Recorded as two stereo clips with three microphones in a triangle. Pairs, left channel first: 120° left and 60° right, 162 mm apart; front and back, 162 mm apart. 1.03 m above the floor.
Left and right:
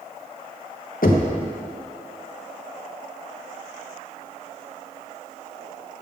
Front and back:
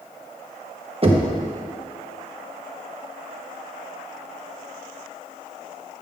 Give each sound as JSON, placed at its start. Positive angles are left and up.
{"t": 1.0, "sound": "knocking", "azimuth_deg": 135, "distance_m": 0.9}